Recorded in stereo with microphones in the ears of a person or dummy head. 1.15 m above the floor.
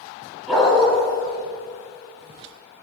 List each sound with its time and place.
0.5 s a dog barking: 5° left (ahead or behind), 1.7 m